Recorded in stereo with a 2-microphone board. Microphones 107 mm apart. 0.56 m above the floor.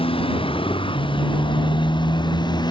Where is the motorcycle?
55° left (ahead or behind); by 2.7 s 40° left (ahead or behind).